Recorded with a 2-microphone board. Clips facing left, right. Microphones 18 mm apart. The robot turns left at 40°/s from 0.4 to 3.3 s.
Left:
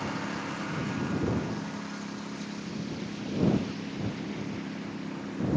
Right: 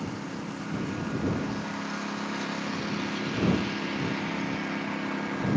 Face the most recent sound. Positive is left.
turn(degrees=-90)